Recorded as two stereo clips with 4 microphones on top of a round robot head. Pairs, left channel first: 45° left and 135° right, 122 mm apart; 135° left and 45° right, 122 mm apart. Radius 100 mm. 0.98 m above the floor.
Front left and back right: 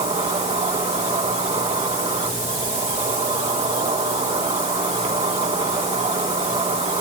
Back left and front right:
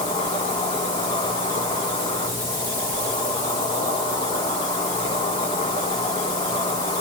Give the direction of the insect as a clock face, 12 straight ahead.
6 o'clock.